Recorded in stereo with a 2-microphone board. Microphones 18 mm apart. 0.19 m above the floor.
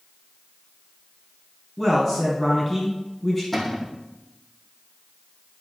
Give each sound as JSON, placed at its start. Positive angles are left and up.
{"t": 1.8, "sound": "a man speaking", "side_deg": 10, "distance_m": 4.5}
{"t": 3.5, "sound": "a cupboard door", "side_deg": 10, "distance_m": 3.5}